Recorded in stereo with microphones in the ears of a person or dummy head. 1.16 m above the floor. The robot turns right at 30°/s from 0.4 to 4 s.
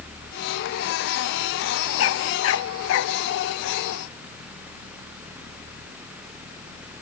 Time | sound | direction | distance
2.0 | a dog barking | 85° left | ?